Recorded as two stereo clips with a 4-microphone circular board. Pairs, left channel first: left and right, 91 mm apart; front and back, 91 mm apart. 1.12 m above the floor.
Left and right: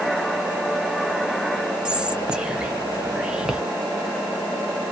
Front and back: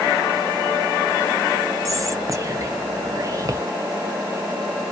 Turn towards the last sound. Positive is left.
turn(degrees=-165)